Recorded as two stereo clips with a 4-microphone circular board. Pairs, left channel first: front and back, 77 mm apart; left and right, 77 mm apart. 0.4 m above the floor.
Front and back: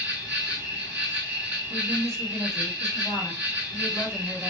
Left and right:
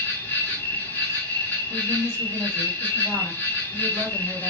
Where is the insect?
130° left, 1.8 m.